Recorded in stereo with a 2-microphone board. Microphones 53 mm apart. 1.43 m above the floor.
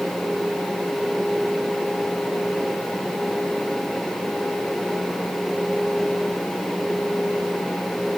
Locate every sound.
Only background noise.